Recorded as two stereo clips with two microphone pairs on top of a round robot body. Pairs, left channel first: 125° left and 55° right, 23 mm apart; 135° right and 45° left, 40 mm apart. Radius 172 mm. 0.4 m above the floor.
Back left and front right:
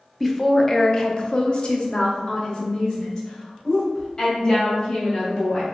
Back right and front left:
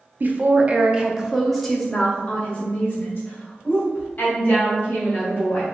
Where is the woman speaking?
55° left, 0.9 m; by 5.6 s straight behind, 3 m.